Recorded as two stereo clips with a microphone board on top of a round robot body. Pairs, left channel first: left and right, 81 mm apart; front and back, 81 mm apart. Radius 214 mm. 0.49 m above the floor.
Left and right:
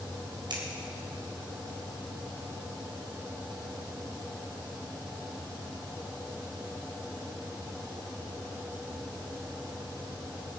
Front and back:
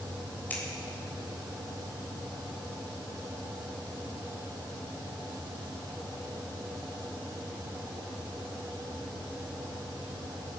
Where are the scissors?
70° right, 4 m.